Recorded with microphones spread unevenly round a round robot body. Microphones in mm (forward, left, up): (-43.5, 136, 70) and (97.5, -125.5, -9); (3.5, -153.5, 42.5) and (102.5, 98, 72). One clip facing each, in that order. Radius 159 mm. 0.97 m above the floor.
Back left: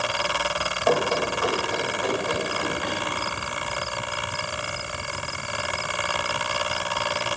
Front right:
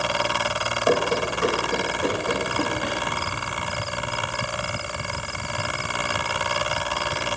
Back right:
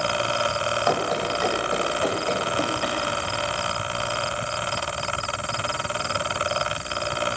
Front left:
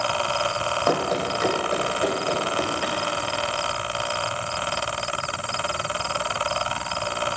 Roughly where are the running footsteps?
Ahead.